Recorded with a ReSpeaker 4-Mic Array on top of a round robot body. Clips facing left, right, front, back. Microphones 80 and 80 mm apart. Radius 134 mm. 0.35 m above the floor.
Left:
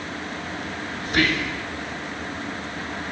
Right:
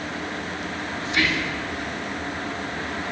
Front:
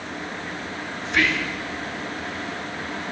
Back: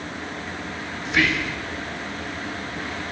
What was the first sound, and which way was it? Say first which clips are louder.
Whispering: left 2 dB, back 1 dB; 95° left.